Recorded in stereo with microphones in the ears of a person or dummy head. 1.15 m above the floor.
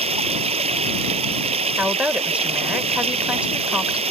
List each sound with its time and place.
0.0 s running water: 30° right (ahead or behind)
1.8 s a woman speaking: 5° right (ahead or behind)